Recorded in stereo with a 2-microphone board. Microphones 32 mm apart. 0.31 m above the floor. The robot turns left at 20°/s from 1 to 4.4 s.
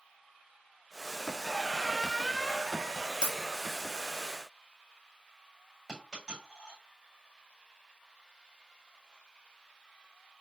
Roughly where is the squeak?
Behind.